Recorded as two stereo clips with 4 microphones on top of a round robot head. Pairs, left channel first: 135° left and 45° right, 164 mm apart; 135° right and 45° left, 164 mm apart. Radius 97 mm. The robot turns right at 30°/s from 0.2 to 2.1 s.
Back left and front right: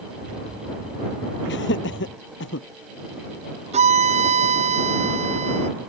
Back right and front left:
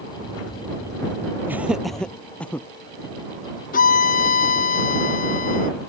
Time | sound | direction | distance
1.5 | laughter | 120° left | ?
3.7 | a violin | 95° right | ?